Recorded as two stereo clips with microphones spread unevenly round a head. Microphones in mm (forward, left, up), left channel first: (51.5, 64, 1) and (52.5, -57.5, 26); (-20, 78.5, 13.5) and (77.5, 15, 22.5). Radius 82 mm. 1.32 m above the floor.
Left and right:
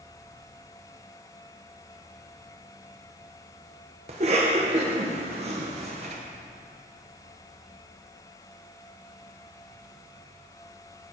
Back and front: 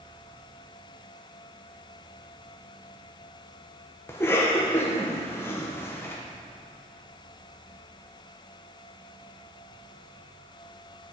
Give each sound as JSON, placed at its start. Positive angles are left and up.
{"t": 4.1, "sound": "a cough", "azimuth_deg": -145, "distance_m": 1.1}